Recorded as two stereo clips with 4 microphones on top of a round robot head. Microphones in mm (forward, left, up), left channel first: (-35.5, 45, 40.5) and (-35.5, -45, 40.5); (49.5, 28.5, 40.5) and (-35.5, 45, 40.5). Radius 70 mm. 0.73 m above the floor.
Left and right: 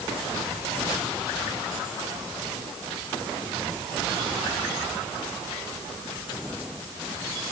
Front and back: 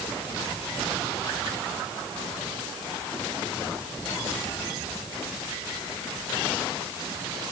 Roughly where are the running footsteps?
I don't hear running footsteps.